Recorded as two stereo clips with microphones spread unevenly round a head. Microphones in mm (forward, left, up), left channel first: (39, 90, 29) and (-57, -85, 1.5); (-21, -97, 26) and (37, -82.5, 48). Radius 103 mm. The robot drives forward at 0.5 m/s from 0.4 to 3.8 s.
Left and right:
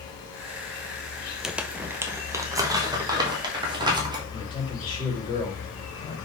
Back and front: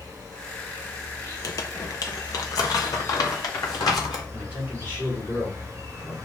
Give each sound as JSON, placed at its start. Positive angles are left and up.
{"t": 0.0, "sound": "an insect", "azimuth_deg": 60, "distance_m": 4.5}
{"t": 1.4, "sound": "crumpling", "azimuth_deg": 155, "distance_m": 0.6}
{"t": 4.3, "sound": "a man speaking", "azimuth_deg": 125, "distance_m": 2.5}